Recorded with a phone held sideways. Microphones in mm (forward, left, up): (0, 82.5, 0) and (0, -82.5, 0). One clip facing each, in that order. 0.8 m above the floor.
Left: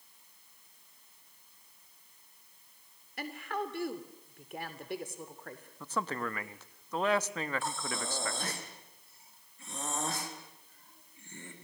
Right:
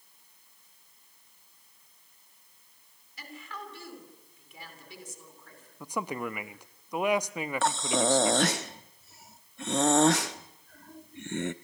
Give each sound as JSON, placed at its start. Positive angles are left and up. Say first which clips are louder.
{"t": 3.2, "sound": "a woman speaking", "louder": "left 7 dB", "side_deg": 60, "distance_m": 2.5}
{"t": 5.8, "sound": "a man speaking", "louder": "right 2 dB", "side_deg": -15, "distance_m": 0.8}
{"t": 7.6, "sound": "breathing", "louder": "right 11 dB", "side_deg": -80, "distance_m": 0.7}